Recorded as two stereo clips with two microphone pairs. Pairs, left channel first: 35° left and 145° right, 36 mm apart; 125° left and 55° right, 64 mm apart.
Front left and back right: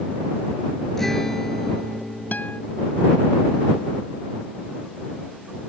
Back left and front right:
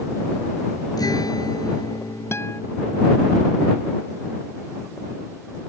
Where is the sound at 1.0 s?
120° left.